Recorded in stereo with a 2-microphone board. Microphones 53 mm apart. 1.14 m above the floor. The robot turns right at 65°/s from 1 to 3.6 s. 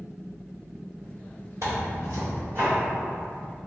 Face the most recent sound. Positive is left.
turn(degrees=20)